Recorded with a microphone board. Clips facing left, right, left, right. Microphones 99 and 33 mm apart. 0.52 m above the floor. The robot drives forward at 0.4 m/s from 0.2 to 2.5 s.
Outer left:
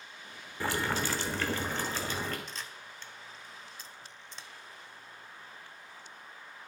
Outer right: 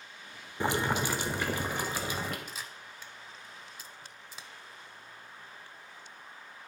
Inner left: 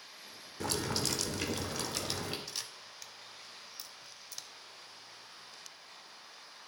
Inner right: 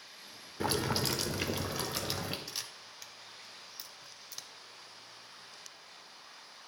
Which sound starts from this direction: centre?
A camera shutter, at 2.5 s.